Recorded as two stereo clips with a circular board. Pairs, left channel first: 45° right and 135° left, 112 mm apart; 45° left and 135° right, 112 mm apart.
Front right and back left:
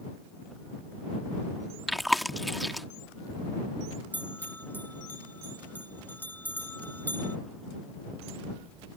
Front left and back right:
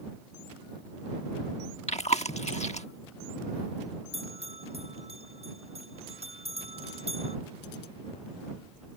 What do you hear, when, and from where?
1.9 s chewing: 45° left
4.1 s a bell: 120° right